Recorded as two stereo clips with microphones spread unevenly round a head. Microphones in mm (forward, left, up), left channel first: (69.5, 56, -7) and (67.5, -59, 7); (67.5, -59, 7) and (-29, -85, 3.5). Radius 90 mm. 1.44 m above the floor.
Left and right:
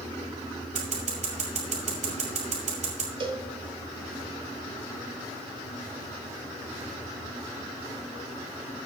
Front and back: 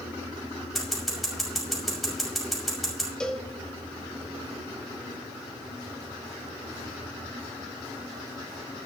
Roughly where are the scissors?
Right.